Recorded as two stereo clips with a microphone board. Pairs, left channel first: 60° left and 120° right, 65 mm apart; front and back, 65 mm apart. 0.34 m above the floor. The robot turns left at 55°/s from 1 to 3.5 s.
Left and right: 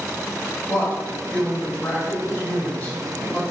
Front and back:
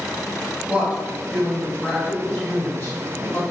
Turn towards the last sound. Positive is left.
turn(degrees=-10)